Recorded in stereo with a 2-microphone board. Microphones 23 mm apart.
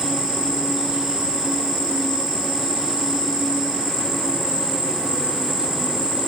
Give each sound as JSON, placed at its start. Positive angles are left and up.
{"t": 0.0, "sound": "an insect", "side_deg": -30, "distance_m": 1.8}